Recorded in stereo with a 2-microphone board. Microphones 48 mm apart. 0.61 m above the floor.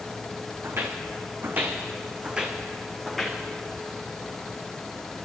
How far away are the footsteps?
About 1.9 m.